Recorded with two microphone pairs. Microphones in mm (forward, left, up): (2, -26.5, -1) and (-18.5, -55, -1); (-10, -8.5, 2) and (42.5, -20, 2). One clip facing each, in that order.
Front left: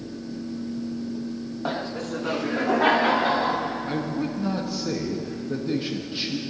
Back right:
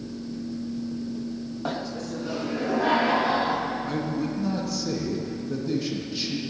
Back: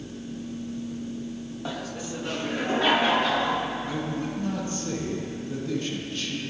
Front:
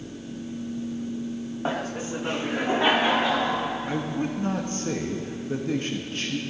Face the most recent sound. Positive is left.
turn(degrees=-5)